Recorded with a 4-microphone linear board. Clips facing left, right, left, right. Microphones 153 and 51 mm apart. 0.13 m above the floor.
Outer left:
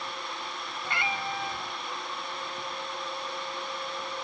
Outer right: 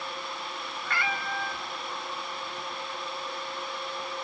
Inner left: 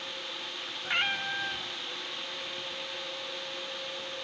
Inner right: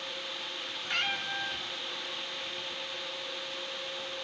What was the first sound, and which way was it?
A cat meowing, 20° left (ahead or behind).